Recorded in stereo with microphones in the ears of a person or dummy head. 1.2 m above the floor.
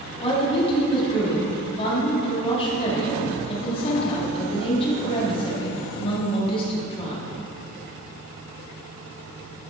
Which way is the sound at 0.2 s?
35° left (ahead or behind).